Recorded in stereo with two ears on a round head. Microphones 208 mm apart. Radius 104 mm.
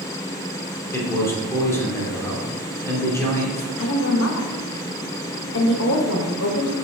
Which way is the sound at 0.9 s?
10° left (ahead or behind).